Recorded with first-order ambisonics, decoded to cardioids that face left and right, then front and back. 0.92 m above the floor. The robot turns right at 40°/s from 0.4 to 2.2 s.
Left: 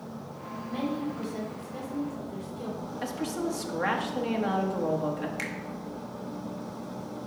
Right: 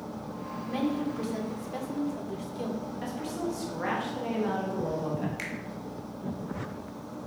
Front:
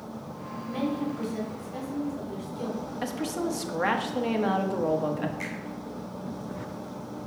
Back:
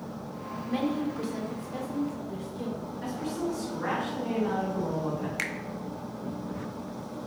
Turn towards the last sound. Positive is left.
turn(degrees=175)